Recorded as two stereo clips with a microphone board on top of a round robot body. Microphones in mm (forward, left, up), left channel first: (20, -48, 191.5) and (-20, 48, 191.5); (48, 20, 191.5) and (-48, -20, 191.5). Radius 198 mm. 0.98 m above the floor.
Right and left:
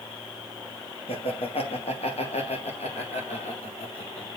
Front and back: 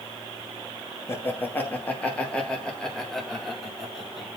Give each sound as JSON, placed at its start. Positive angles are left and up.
{"t": 1.1, "sound": "laughter", "azimuth_deg": -45, "distance_m": 2.5}